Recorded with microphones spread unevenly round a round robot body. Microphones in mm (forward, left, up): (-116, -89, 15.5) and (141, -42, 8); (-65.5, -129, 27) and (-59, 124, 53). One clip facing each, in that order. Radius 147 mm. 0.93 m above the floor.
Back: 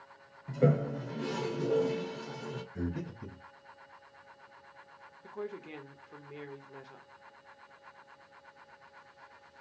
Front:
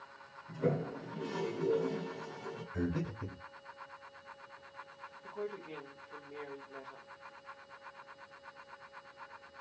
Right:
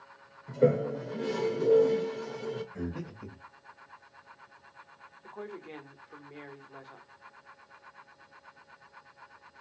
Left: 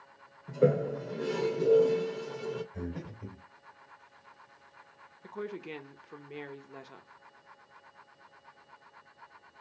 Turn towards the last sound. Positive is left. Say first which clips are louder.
# back 1 dB, left 3 dB
turn(degrees=135)